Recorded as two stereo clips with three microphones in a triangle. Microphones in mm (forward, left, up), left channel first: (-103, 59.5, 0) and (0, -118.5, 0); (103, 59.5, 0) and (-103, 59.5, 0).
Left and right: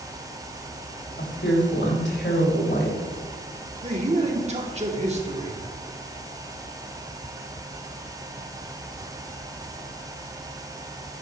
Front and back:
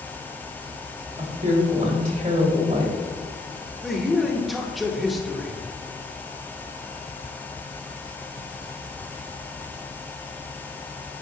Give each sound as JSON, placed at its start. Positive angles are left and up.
{"t": 1.2, "sound": "a woman speaking", "azimuth_deg": 135, "distance_m": 3.0}
{"t": 3.8, "sound": "a man speaking", "azimuth_deg": -90, "distance_m": 1.3}